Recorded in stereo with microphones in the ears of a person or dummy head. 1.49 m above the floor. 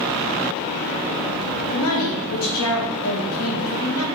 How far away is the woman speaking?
About 0.9 m.